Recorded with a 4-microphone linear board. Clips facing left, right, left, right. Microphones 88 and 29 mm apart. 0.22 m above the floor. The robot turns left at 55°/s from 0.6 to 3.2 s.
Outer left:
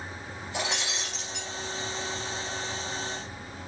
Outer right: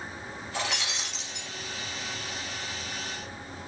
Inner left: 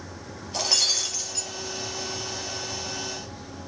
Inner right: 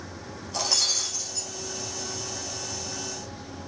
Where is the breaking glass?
160° left, 3 m; by 1.5 s 115° left, 3 m.